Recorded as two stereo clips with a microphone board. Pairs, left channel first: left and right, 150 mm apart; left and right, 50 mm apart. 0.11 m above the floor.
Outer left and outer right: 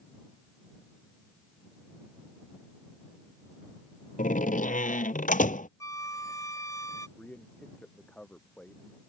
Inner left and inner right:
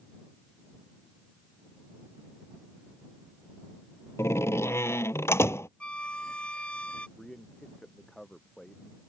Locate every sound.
4.2 s a door slam: 60° left (ahead or behind)
5.8 s a flute: 20° left (ahead or behind)
7.2 s a man speaking: 10° left (ahead or behind)